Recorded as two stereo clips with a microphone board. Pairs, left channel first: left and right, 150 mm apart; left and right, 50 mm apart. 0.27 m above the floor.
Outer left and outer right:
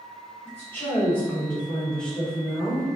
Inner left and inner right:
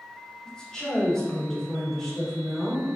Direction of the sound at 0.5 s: 15° left (ahead or behind).